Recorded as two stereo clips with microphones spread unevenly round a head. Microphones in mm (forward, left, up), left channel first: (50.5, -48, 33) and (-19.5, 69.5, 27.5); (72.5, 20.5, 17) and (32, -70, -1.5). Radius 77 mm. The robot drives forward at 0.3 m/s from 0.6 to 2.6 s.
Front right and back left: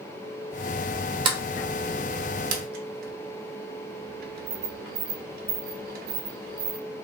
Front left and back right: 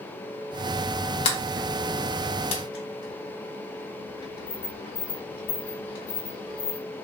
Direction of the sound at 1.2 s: 65° left.